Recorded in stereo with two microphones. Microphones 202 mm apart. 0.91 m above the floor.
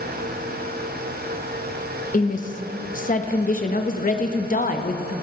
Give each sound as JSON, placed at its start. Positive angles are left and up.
{"t": 2.1, "sound": "a woman speaking", "side_deg": 40, "distance_m": 0.8}